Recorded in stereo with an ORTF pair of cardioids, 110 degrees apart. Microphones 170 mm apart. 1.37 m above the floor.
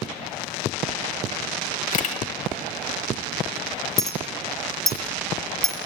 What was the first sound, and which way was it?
A camera shutter, 50° left.